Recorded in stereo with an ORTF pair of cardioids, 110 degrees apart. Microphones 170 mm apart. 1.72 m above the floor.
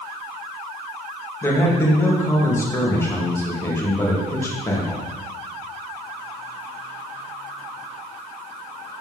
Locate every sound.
1.4 s a man speaking: 15° left, 3 m